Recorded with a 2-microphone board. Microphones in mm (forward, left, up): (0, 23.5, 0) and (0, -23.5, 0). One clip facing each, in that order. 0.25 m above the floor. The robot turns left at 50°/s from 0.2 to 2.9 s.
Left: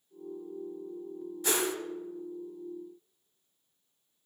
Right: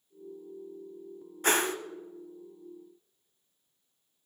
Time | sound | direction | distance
1.4 | a whoosh | 45° right (ahead or behind) | 0.9 m